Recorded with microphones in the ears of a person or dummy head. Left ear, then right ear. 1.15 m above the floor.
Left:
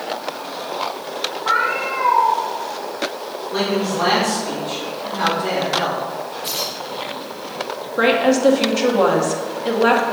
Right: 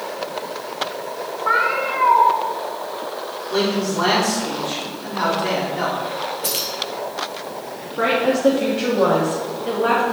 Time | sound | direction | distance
1.4 | a cat meowing | 10° right (ahead or behind) | 1.0 m
3.5 | a man speaking | 25° right (ahead or behind) | 4 m
6.4 | keys jangling | 30° right (ahead or behind) | 1.0 m
8.0 | a woman speaking | 75° left (ahead or behind) | 2.0 m